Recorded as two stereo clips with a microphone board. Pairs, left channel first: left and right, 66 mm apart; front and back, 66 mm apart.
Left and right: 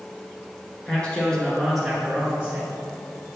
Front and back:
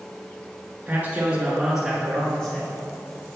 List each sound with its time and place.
0.9 s a man speaking: 145° left, 1.8 m; by 2.7 s 50° right, 1.8 m